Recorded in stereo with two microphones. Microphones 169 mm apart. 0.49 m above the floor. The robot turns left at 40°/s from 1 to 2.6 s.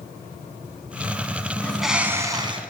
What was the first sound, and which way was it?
A bird, 5° left.